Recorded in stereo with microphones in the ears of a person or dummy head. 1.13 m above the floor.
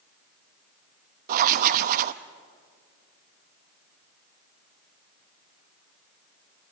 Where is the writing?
45° right (ahead or behind), 0.7 m.